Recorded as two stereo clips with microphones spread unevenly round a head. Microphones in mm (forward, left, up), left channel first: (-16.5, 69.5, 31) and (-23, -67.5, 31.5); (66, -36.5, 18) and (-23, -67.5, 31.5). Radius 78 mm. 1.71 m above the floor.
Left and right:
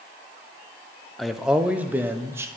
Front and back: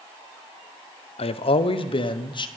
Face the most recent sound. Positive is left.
turn(degrees=-20)